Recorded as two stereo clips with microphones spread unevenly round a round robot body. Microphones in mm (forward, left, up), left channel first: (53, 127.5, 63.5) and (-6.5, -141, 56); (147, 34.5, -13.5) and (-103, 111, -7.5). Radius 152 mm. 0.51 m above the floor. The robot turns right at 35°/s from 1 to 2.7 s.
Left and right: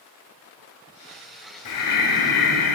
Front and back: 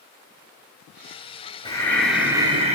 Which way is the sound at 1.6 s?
60° left.